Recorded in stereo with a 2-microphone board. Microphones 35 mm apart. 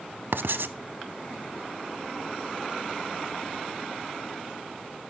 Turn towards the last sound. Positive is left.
turn(degrees=-80)